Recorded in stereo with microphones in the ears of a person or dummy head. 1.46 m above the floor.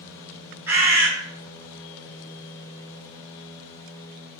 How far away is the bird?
About 1.8 m.